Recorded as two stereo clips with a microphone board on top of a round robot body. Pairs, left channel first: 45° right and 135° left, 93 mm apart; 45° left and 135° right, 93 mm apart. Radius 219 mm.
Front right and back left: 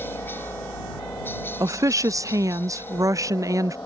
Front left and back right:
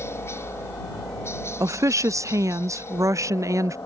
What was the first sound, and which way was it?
A helicopter, 5° left.